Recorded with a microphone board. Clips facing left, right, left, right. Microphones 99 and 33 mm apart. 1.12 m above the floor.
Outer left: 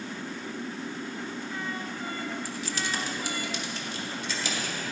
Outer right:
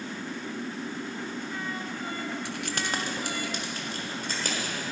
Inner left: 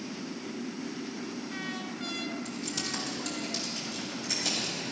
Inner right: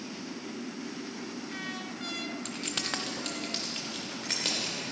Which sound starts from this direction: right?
Keys jangling, at 2.5 s.